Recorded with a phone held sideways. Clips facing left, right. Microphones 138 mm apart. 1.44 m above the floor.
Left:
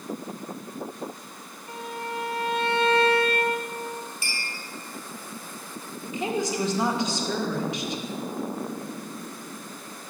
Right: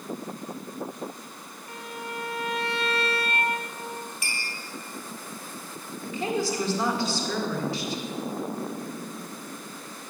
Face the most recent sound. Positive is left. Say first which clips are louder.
# even
turn(degrees=20)  # may be behind; listen again after turning